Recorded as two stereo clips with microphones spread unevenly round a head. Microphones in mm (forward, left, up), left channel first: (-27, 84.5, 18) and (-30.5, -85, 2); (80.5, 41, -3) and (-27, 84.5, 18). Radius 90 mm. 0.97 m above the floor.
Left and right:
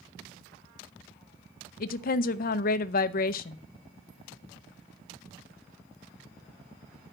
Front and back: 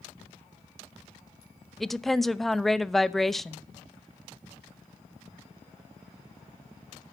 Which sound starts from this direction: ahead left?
A woman speaking, at 1.8 s.